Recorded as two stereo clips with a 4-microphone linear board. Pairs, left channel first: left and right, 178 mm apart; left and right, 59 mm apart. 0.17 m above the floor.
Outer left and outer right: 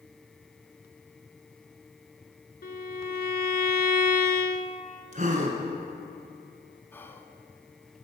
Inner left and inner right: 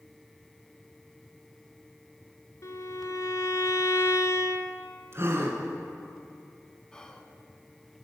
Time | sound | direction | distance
2.6 | a violin | 60° left (ahead or behind) | 0.7 m
5.1 | a gasp | 50° right (ahead or behind) | 1.7 m
6.9 | whispering | 10° left (ahead or behind) | 1.1 m